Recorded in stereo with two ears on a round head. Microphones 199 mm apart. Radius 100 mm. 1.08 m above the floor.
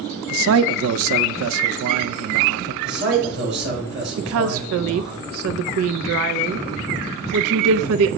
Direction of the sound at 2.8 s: 50° right (ahead or behind).